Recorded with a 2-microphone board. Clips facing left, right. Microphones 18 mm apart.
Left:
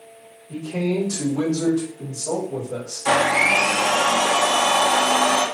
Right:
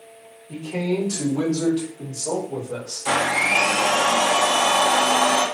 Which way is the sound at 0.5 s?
55° right (ahead or behind).